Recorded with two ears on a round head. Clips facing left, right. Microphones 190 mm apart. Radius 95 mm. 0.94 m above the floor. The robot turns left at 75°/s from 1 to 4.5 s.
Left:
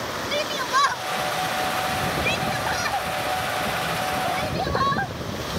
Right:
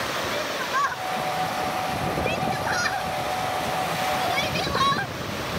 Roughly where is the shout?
Left.